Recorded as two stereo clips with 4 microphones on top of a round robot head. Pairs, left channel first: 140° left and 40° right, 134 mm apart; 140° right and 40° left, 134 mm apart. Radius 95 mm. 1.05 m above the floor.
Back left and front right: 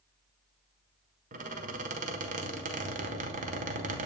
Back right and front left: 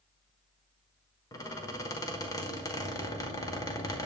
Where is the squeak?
75° right, 1.3 m.